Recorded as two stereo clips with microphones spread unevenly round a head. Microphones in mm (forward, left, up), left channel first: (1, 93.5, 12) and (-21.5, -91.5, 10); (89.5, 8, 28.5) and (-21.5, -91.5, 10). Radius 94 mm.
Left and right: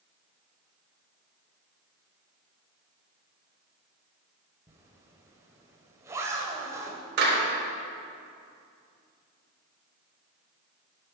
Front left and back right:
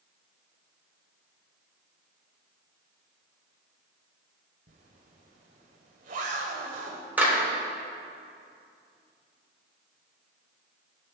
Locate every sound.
4.7 s a zipper: 165° right, 1.4 m
7.2 s a clap: 60° right, 4 m